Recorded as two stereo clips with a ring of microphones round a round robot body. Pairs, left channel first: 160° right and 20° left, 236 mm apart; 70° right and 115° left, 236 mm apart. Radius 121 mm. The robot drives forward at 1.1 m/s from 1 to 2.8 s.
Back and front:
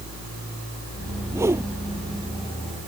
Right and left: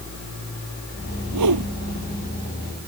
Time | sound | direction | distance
1.3 | a whoosh | 100° left | ?